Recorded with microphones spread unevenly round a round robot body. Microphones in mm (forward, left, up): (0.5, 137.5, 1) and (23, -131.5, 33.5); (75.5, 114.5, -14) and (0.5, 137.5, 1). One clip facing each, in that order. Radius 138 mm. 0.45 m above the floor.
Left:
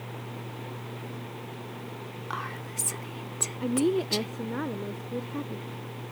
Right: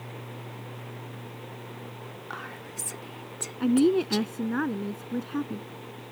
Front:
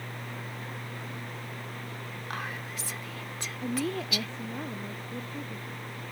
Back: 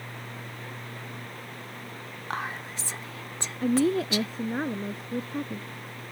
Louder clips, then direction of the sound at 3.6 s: Right 4 dB, back 8 dB; 140° right.